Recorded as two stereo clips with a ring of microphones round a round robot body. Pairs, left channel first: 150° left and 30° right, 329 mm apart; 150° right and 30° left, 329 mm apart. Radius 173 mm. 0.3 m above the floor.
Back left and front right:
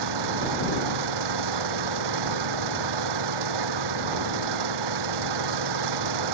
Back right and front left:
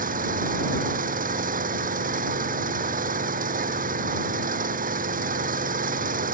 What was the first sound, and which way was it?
An engine running, 35° right.